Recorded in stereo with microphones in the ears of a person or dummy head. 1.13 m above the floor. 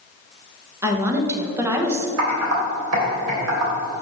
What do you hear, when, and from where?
0.8 s a woman speaking: 10° right (ahead or behind), 0.9 m
2.2 s typing on a keyboard: 75° right (ahead or behind), 2.5 m